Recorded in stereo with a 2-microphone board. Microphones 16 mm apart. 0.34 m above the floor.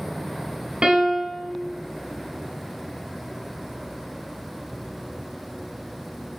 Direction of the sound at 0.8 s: 65° right (ahead or behind).